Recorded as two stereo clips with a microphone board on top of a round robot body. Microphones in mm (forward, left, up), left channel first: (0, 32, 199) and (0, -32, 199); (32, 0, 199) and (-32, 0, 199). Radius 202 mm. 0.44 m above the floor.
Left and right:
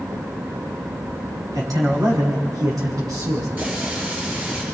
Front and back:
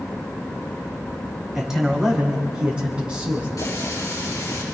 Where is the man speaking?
95° right, 5 m; by 3.5 s 110° right, 5.5 m.